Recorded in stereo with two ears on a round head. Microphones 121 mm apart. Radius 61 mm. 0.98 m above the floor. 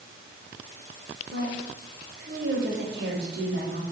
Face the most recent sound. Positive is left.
turn(degrees=-85)